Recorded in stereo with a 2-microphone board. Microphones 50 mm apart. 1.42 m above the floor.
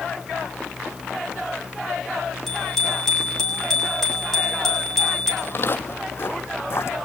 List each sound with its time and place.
2.5 s a bicycle bell: 5° left (ahead or behind), 7.5 m
5.4 s footsteps: 45° left (ahead or behind), 2 m; by 7.0 s 55° left (ahead or behind), 3.5 m